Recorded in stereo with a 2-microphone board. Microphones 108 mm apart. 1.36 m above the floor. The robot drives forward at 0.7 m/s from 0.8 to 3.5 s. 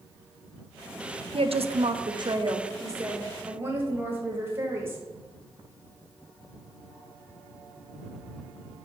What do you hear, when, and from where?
1.3 s a woman speaking: 65° right (ahead or behind), 0.6 m; by 5.0 s 20° right (ahead or behind), 1.4 m